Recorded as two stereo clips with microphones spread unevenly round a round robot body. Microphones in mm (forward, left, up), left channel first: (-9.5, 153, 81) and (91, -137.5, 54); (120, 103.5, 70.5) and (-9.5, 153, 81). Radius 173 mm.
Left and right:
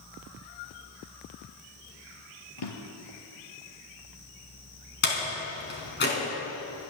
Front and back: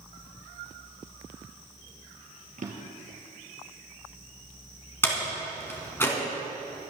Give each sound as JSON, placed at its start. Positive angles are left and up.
{"t": 2.6, "sound": "a drawer", "azimuth_deg": 130, "distance_m": 3.0}
{"t": 5.0, "sound": "a door slam", "azimuth_deg": 55, "distance_m": 4.0}